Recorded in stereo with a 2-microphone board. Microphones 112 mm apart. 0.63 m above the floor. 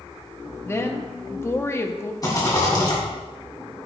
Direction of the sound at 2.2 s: 35° left (ahead or behind).